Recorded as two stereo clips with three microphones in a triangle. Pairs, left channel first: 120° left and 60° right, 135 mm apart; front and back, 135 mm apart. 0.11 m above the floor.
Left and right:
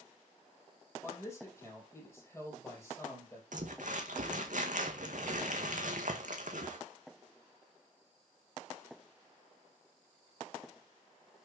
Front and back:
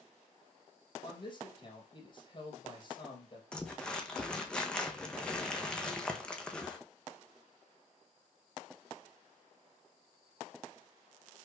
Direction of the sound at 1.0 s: 50° left.